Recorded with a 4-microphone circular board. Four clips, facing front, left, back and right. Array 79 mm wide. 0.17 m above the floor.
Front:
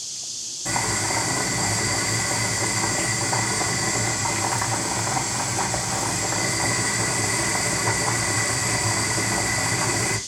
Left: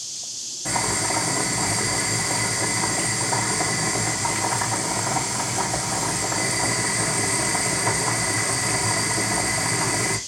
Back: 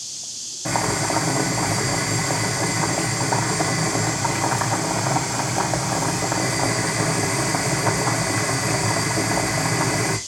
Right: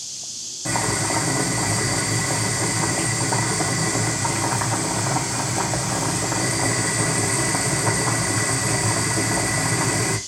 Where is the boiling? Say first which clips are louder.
Right 2 dB, back 4 dB; 165° right, 3.5 m.